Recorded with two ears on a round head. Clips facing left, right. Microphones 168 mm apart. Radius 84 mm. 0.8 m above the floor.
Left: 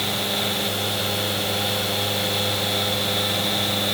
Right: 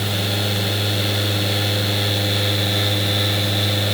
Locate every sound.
Only background noise.